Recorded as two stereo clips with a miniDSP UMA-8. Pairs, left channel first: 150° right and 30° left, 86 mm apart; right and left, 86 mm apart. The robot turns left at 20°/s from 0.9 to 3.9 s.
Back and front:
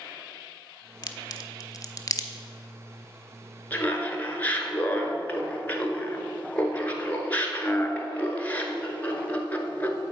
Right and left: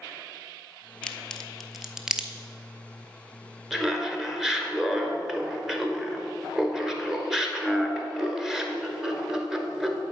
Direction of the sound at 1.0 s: 170° right.